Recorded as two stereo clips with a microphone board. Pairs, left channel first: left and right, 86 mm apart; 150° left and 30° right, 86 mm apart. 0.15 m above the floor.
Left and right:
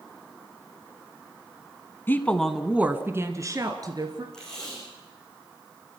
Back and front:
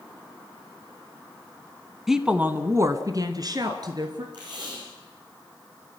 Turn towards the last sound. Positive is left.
turn(degrees=5)